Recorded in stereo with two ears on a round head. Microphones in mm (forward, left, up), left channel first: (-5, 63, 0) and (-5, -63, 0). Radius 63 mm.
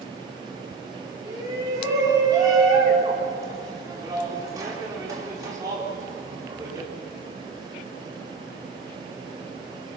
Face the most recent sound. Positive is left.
turn(degrees=-25)  # may be behind; listen again after turning